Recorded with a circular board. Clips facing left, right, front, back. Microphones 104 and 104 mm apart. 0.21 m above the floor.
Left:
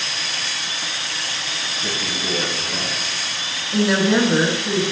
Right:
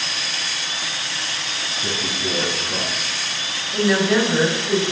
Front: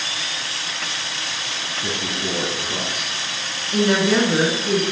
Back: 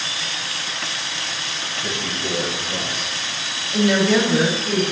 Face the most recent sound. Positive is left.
turn(degrees=35)